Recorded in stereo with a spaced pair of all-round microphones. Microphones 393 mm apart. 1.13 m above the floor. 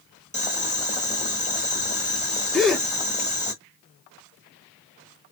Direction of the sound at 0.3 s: 20° left (ahead or behind).